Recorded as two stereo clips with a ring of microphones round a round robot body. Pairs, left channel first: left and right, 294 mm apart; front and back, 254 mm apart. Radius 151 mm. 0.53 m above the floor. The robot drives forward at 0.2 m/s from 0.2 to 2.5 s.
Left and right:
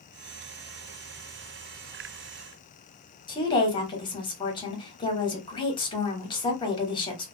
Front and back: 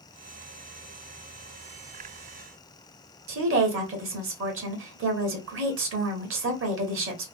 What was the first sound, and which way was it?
A woman speaking, 160° left.